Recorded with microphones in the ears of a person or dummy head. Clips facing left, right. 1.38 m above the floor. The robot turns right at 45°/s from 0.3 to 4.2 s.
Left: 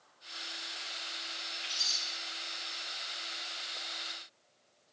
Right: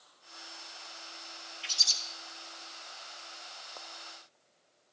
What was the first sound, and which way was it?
A bird, 40° right (ahead or behind).